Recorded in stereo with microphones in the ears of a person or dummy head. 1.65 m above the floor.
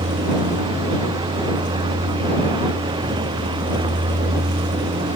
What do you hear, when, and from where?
0.0 s a vehicle: 30° right (ahead or behind)